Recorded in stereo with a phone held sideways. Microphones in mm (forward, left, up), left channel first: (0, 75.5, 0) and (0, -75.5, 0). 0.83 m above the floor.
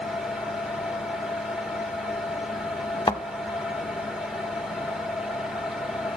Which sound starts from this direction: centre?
A fan, at 0.0 s.